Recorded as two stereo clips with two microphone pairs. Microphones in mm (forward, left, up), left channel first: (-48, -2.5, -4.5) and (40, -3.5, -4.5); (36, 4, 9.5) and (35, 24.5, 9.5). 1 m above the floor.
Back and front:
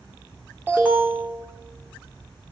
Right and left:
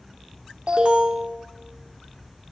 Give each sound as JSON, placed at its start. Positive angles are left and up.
{"t": 0.7, "sound": "an alarm", "azimuth_deg": 65, "distance_m": 1.8}